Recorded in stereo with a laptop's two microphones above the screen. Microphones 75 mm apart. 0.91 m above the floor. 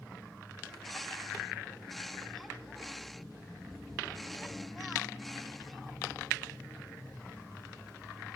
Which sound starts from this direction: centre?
A bird, at 0.7 s.